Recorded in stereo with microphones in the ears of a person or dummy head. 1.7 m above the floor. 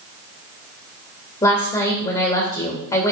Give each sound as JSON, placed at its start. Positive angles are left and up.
{"t": 1.4, "sound": "a woman speaking", "side_deg": 30, "distance_m": 2.5}